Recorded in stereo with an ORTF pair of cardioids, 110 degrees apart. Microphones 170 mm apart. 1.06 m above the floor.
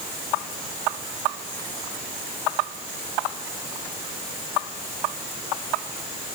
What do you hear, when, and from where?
Only background noise.